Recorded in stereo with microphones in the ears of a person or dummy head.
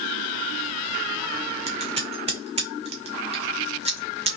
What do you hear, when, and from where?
1.7 s scissors: 35° right (ahead or behind), 0.9 m